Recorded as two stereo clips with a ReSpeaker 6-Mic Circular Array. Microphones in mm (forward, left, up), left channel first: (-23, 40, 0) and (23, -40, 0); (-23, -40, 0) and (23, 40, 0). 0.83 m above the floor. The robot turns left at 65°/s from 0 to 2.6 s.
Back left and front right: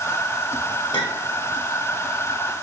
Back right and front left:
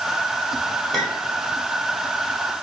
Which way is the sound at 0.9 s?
150° left.